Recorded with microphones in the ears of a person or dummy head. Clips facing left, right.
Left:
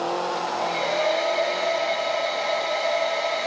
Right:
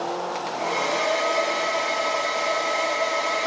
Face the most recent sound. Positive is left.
turn(degrees=-55)  # may be behind; listen again after turning